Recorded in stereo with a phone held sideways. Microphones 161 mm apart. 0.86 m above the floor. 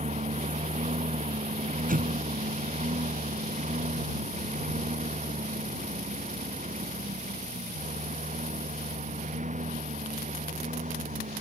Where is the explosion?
60° right (ahead or behind).